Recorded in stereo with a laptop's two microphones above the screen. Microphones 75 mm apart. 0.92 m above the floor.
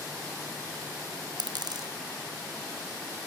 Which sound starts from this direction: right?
A dropped coin, at 1.4 s.